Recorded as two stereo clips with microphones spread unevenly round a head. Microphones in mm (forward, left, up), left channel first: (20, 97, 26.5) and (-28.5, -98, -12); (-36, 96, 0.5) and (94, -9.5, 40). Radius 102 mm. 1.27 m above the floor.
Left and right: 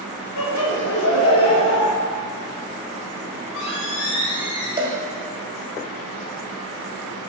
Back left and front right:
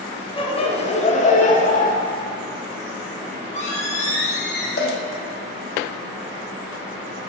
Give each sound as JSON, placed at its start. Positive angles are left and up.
{"t": 0.4, "sound": "laughter", "azimuth_deg": 85, "distance_m": 2.0}
{"t": 3.3, "sound": "a squeak", "azimuth_deg": 90, "distance_m": 3.5}
{"t": 4.8, "sound": "a cowbell", "azimuth_deg": -175, "distance_m": 1.8}